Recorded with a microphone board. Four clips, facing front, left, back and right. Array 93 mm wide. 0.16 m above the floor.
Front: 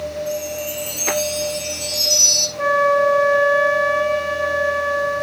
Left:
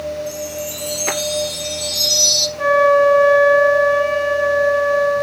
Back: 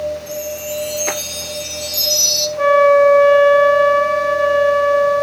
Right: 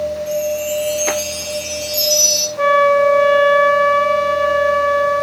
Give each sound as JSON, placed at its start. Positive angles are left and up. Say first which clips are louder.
{"t": 0.3, "sound": "a chime", "louder": "right 7 dB, even", "azimuth_deg": -75, "distance_m": 1.7}
{"t": 2.6, "sound": "a flute", "louder": "even, back 6 dB", "azimuth_deg": -115, "distance_m": 4.0}